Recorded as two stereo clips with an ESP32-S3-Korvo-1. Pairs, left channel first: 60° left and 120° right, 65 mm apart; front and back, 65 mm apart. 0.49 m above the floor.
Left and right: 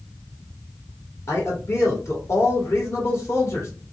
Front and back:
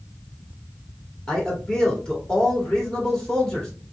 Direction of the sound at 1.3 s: 75° left.